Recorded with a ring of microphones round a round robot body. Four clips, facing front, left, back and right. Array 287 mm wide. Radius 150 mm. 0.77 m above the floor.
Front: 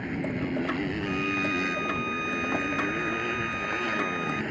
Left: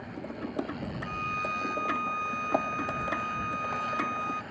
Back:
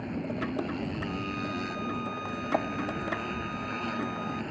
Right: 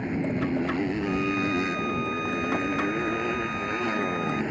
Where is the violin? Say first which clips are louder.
Right 7 dB, front 5 dB; 35° right.